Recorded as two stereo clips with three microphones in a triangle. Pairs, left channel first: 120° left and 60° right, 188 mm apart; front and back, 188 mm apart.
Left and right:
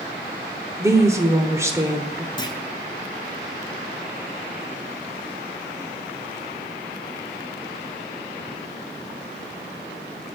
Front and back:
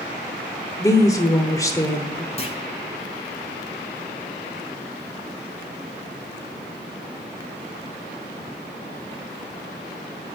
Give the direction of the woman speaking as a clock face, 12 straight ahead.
1 o'clock.